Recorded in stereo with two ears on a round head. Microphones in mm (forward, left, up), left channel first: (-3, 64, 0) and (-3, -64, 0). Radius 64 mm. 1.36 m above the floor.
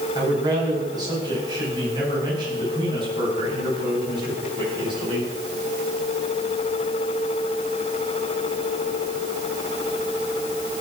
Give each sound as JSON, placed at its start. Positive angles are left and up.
{"t": 0.1, "sound": "a man speaking", "side_deg": -30, "distance_m": 8.5}